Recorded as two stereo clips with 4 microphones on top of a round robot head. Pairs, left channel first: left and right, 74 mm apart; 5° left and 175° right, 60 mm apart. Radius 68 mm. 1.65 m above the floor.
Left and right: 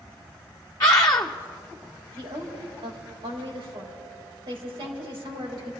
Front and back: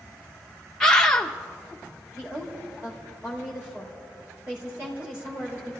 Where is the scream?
75° left, 0.5 m.